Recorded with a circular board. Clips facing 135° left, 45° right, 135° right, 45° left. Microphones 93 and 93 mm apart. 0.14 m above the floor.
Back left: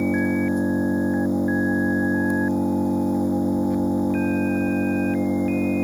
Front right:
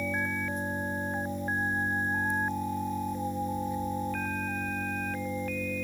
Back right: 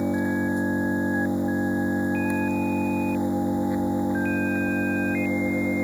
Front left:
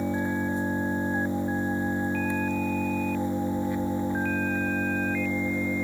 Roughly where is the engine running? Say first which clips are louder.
Back left 12 dB, back right 3 dB; behind left.